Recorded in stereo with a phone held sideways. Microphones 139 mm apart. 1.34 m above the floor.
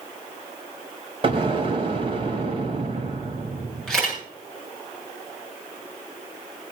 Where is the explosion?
40° right (ahead or behind), 2 m.